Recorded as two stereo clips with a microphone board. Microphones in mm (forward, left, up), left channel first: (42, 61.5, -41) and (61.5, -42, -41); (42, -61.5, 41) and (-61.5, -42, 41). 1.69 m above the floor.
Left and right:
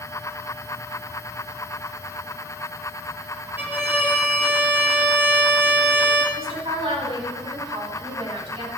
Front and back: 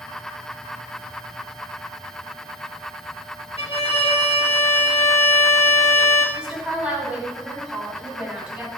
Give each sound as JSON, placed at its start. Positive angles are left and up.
{"t": 3.6, "sound": "a violin", "azimuth_deg": -10, "distance_m": 2.0}
{"t": 6.3, "sound": "a woman speaking", "azimuth_deg": -110, "distance_m": 6.0}